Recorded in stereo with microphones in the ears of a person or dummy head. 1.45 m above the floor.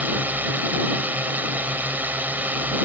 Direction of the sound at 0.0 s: 5° right (ahead or behind).